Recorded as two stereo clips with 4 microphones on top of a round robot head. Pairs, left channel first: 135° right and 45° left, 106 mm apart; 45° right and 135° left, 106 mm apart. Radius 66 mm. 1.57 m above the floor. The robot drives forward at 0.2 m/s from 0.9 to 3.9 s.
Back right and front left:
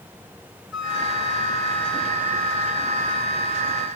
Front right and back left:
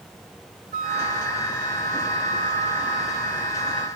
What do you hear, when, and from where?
0.7 s a flute: 130° left, 4.5 m; by 3.9 s 135° left, 5 m